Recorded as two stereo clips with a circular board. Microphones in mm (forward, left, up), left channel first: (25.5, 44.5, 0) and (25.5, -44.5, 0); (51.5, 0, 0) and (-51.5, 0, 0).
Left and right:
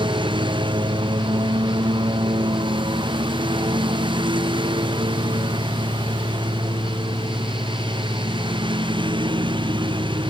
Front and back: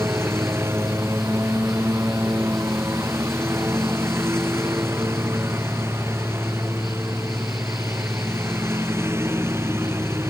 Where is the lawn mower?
115° right.